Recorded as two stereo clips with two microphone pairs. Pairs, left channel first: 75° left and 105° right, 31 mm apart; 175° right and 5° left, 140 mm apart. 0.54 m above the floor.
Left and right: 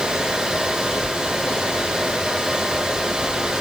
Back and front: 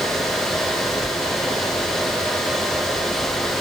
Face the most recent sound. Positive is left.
No sound to turn to.